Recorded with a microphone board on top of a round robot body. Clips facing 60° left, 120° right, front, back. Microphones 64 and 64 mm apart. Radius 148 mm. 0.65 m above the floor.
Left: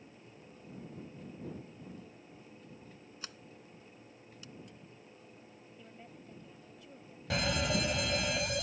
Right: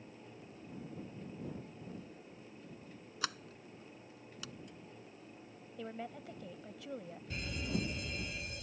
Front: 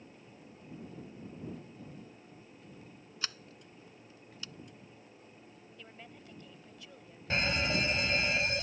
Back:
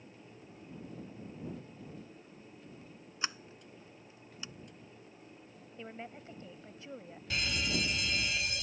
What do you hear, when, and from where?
3.2 s a sliding door: 110° right
5.8 s a woman speaking: 115° right
7.3 s a fire alarm: 60° left